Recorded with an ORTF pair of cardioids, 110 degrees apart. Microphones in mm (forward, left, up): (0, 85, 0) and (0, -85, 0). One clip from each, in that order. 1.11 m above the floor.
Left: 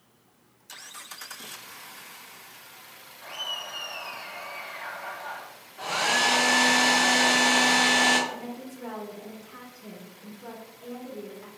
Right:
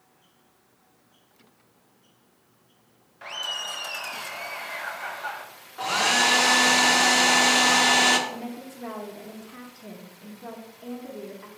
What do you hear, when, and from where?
3.2 s laughter: 70° right, 1.0 m
5.8 s a hair dryer: 40° right, 0.9 m
8.3 s a woman speaking: 20° right, 0.9 m